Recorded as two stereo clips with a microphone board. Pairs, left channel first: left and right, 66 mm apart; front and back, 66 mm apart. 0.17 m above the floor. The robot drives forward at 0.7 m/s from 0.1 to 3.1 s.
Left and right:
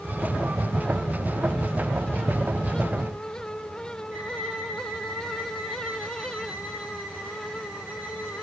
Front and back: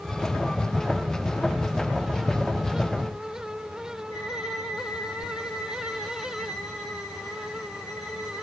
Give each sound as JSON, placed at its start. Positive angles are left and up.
{"t": 4.1, "sound": "a violin", "azimuth_deg": -25, "distance_m": 4.5}